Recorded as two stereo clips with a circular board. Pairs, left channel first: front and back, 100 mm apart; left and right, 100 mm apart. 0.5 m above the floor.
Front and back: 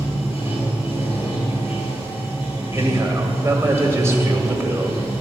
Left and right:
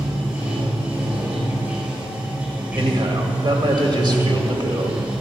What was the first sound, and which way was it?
Running water, 15° right.